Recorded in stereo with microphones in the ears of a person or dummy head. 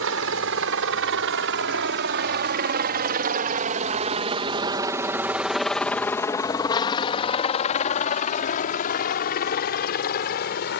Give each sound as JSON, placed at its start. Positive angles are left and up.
{"t": 0.0, "sound": "a helicopter", "side_deg": -75}